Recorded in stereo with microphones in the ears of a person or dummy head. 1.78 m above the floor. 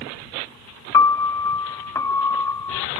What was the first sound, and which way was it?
A piano, 10° left (ahead or behind).